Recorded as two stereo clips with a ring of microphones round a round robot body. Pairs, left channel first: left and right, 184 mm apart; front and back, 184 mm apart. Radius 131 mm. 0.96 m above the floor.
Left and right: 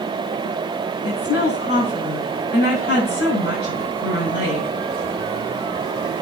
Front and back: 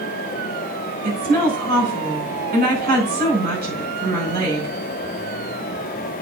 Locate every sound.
1.0 s a woman speaking: 145° left, 5 m